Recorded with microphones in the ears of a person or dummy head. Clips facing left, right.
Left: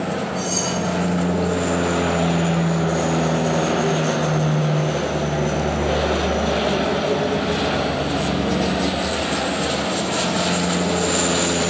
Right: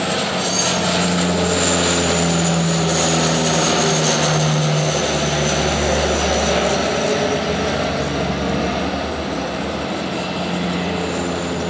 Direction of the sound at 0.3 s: 55° left (ahead or behind).